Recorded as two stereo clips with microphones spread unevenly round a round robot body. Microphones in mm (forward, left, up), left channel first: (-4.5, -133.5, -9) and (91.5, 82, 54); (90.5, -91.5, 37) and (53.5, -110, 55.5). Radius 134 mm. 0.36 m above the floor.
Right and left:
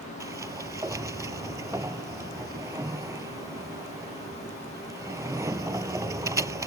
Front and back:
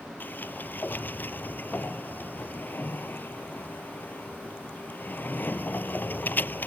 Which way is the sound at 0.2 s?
10° right.